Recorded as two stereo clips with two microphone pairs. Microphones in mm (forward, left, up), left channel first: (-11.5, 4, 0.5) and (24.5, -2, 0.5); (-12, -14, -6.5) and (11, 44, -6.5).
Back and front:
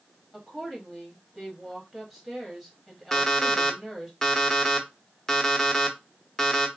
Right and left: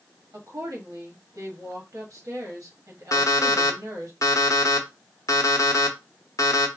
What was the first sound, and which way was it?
A woman speaking, 75° left.